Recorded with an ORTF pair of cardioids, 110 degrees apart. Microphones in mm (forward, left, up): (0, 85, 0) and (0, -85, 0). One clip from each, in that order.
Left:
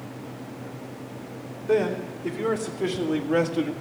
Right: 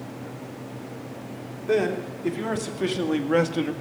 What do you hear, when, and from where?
1.7 s a man speaking: 25° right, 3 m